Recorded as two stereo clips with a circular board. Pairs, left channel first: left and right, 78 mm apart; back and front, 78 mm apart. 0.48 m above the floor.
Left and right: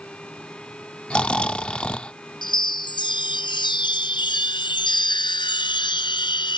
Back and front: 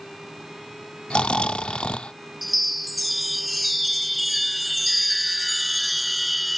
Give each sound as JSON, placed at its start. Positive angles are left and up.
{"t": 1.1, "sound": "snoring", "azimuth_deg": 135}
{"t": 2.4, "sound": "a chime", "azimuth_deg": 90}